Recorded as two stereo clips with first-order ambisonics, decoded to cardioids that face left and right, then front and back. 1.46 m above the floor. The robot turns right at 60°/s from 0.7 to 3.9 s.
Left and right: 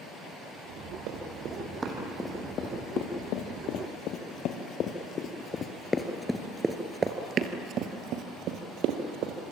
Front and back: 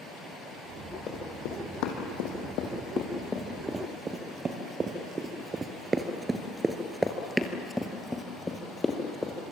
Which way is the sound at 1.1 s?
60° right.